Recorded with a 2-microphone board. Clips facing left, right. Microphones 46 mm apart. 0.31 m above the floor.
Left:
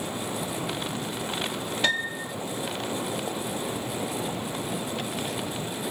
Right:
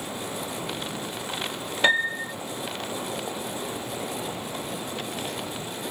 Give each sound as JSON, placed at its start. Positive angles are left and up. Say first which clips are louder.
{"t": 1.8, "sound": "a piano", "louder": "right 6 dB", "side_deg": -25}